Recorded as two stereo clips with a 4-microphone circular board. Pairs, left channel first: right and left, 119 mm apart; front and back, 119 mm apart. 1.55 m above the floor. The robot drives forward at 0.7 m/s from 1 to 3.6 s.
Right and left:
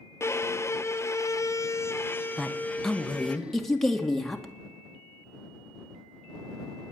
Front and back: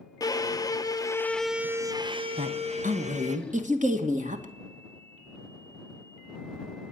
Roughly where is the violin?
Ahead right.